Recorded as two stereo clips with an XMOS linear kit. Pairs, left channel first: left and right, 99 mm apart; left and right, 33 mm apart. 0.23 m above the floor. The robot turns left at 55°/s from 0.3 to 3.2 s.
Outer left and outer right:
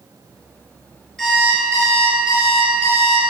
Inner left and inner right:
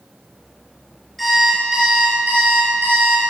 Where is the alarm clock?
10° left, 2.5 m; by 3.3 s 105° right, 2.5 m.